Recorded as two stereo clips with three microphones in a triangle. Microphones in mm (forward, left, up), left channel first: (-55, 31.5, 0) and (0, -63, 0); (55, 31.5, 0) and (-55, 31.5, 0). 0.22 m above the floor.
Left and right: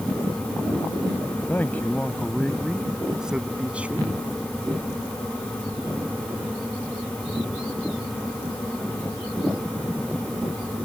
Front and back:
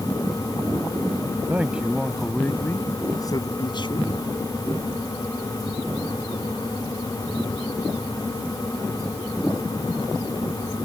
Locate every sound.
1.5 s a man speaking: 145° left; by 4.1 s 10° left